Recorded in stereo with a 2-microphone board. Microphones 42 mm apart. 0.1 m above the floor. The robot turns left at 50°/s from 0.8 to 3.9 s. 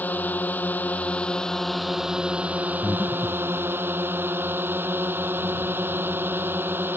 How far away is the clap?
No clap in this recording.